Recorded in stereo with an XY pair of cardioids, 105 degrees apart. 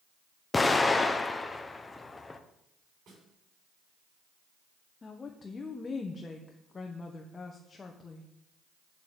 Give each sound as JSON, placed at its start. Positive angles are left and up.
{"t": 0.5, "sound": "an explosion", "azimuth_deg": 20, "distance_m": 1.0}
{"t": 3.1, "sound": "a snare drum", "azimuth_deg": -70, "distance_m": 6.5}
{"t": 5.0, "sound": "a woman speaking", "azimuth_deg": 30, "distance_m": 1.3}